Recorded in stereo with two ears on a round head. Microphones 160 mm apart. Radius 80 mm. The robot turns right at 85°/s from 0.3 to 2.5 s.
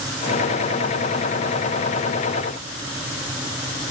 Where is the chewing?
I don't hear chewing.